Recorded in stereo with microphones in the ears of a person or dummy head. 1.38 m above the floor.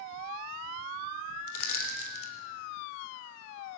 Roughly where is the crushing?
Left.